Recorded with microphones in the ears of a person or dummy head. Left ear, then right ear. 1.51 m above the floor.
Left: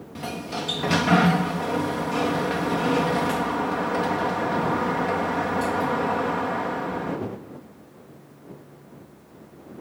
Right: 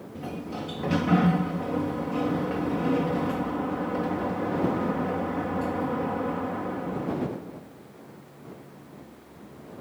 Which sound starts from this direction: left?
A sliding door, at 0.1 s.